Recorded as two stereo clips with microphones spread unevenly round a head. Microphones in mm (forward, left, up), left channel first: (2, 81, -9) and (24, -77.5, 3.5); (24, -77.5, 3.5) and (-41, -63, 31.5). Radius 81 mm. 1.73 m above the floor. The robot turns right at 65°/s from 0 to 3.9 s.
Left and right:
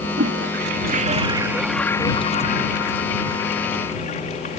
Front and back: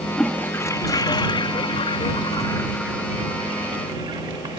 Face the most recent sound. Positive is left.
turn(degrees=150)